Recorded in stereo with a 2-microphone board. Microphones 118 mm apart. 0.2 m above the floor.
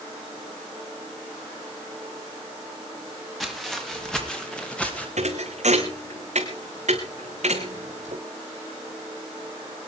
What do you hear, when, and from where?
3.4 s footsteps: centre (ahead or behind), 5 m; by 5.1 s 10° left (ahead or behind), 5 m
5.2 s a thud: 75° right (ahead or behind), 3.5 m